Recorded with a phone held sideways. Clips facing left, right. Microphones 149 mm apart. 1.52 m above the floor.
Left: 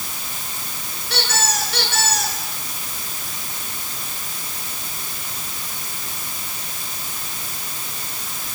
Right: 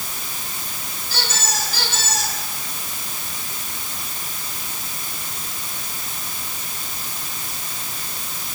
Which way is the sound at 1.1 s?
70° left (ahead or behind).